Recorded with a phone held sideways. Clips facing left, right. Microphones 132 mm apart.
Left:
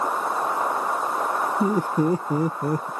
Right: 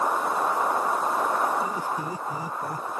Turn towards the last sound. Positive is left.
turn(degrees=65)  # may be behind; listen again after turning